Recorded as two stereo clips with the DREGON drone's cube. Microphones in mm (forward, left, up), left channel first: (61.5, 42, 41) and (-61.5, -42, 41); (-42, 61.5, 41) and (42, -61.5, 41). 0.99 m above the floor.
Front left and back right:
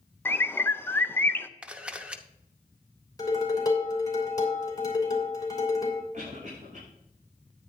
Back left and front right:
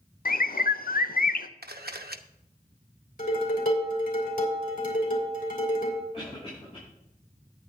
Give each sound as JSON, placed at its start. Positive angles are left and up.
{"t": 0.2, "sound": "a bird", "azimuth_deg": 110, "distance_m": 0.5}
{"t": 1.6, "sound": "a camera shutter", "azimuth_deg": -65, "distance_m": 0.8}
{"t": 3.2, "sound": "dishes clattering", "azimuth_deg": 100, "distance_m": 3.0}
{"t": 6.1, "sound": "a cough", "azimuth_deg": 175, "distance_m": 5.5}